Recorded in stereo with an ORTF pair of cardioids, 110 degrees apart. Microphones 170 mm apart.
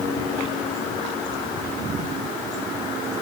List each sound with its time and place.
Only background noise.